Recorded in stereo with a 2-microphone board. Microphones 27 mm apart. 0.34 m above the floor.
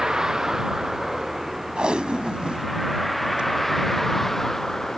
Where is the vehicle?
25° right (ahead or behind); by 5.0 s 10° left (ahead or behind).